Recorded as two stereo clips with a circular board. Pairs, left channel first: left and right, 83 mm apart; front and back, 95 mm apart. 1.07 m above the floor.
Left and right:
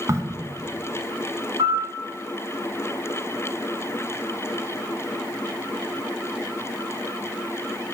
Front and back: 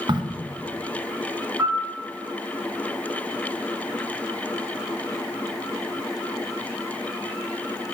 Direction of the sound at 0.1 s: 145° right.